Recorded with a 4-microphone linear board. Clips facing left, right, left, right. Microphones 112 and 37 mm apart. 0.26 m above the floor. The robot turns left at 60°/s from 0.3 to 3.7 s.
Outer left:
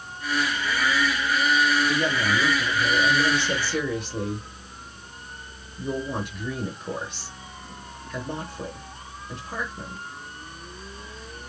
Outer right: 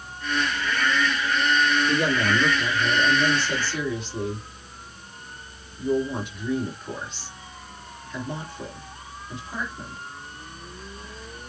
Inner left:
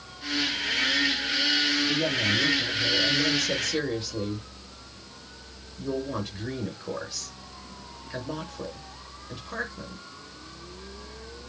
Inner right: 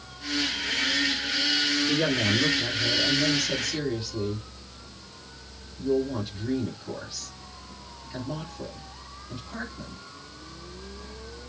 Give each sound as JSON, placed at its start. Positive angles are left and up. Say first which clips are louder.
{"t": 1.9, "sound": "a woman speaking", "louder": "outer right 2 dB, inner right 1 dB", "side_deg": -50, "distance_m": 3.5}